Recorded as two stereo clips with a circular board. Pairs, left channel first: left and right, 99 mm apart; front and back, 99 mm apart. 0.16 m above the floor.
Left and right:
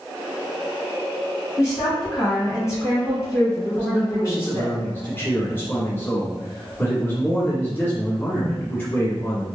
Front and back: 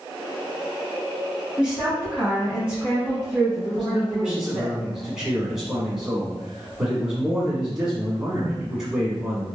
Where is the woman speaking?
110° left, 1.6 m.